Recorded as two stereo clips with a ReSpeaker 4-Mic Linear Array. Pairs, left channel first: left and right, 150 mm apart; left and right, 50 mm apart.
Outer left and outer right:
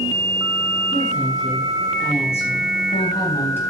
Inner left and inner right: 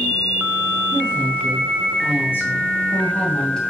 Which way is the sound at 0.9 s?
65° left (ahead or behind).